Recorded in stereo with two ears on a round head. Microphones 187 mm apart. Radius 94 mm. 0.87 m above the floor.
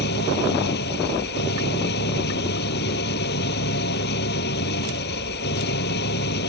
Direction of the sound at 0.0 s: 50° left (ahead or behind).